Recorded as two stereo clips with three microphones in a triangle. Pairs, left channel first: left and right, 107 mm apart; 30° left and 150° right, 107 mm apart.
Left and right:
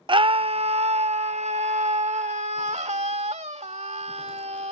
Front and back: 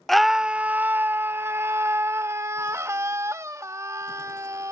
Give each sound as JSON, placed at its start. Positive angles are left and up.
{"t": 0.1, "sound": "a scream", "azimuth_deg": -55}